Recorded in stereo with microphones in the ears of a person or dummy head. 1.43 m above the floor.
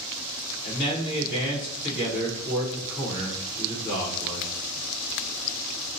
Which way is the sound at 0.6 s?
55° left (ahead or behind).